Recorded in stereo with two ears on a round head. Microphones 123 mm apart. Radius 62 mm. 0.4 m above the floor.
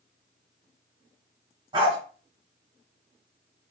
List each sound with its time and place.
1.7 s a dog barking: 35° right (ahead or behind), 1.3 m